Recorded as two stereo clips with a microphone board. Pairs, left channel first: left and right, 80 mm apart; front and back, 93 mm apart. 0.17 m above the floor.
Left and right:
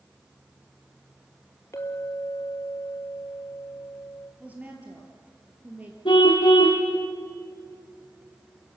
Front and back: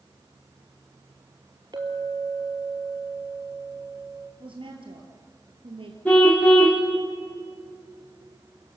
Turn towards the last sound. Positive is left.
turn(degrees=80)